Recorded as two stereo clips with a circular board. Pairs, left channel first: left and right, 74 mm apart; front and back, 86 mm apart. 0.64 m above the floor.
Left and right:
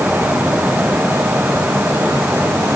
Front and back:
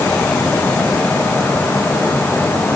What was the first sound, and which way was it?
Only background noise.